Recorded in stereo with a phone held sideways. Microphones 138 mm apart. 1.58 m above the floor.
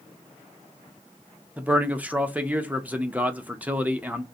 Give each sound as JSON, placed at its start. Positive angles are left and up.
{"t": 1.6, "sound": "a man speaking", "side_deg": -10, "distance_m": 0.5}